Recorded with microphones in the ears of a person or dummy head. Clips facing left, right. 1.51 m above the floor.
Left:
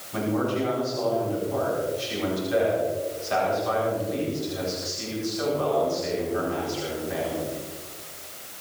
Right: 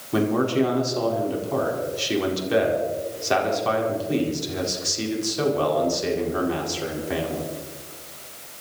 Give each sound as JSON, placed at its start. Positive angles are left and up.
{"t": 0.1, "sound": "a man speaking", "side_deg": -85, "distance_m": 4.0}